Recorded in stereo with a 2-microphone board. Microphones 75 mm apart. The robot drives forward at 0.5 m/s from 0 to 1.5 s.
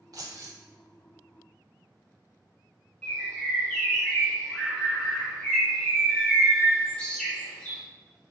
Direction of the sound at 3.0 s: 15° left (ahead or behind).